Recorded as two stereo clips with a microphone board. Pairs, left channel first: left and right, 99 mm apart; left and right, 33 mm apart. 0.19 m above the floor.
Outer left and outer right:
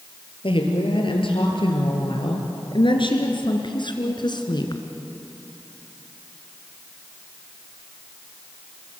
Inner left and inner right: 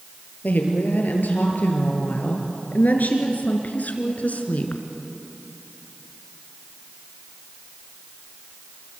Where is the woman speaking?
70° left (ahead or behind), 5 m; by 4.8 s 50° left (ahead or behind), 2.5 m.